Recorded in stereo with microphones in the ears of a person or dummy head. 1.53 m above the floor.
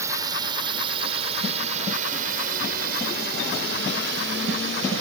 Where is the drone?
20° right (ahead or behind); by 5.0 s 70° right (ahead or behind).